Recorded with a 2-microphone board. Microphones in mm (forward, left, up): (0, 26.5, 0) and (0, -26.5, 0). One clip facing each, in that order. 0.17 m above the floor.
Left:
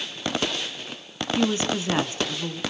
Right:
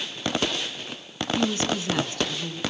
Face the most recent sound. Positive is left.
turn(degrees=25)  # may be behind; listen again after turning